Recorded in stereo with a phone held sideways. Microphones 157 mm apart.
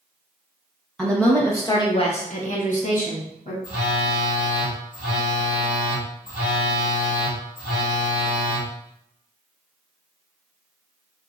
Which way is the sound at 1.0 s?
5° left (ahead or behind).